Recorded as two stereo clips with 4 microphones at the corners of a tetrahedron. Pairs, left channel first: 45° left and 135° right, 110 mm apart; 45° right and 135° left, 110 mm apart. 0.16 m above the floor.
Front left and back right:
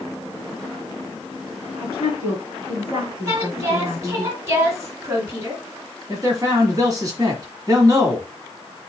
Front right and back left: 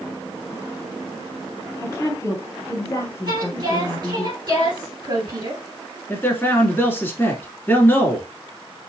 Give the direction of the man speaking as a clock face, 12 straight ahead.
3 o'clock.